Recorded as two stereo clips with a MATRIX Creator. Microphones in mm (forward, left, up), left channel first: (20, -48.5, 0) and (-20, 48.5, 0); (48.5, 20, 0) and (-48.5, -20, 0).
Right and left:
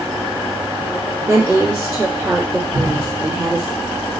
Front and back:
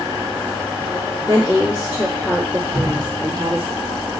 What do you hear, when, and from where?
1.3 s a woman speaking: 70° left, 2 m
2.7 s dripping: 120° left, 1.2 m